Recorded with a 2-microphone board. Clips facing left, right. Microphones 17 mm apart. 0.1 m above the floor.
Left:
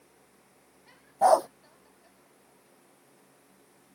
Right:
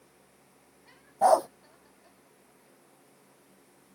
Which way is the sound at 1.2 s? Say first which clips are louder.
Left 1 dB; 5° left (ahead or behind).